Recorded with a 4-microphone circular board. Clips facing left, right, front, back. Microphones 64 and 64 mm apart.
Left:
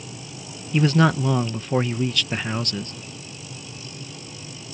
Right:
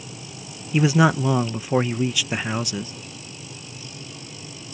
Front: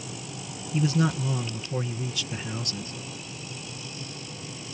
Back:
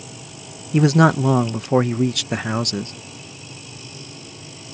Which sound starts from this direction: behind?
A man speaking, at 0.7 s.